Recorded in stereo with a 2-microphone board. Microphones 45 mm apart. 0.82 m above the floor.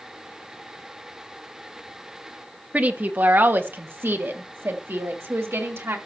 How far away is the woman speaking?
About 1.1 m.